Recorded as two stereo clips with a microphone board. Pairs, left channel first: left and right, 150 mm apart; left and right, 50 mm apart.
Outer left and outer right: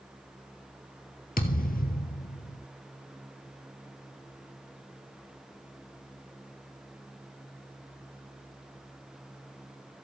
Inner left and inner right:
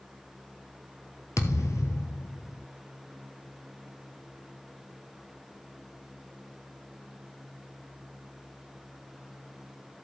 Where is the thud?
75° left (ahead or behind), 1.4 m.